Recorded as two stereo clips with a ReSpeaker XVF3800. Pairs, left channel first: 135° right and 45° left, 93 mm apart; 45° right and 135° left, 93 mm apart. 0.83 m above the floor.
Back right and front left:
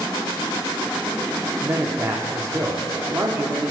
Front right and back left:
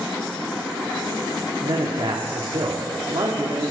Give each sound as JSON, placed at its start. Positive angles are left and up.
{"t": 1.6, "sound": "a man speaking", "azimuth_deg": 100, "distance_m": 1.5}